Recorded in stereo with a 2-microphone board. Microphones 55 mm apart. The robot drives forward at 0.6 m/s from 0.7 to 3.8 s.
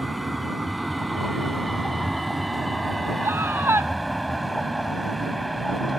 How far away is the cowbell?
I don't hear a cowbell.